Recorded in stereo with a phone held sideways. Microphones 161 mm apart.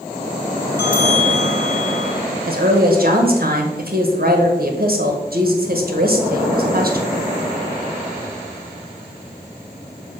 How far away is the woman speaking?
About 1.4 m.